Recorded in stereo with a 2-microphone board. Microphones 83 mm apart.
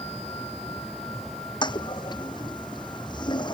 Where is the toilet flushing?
65° left (ahead or behind).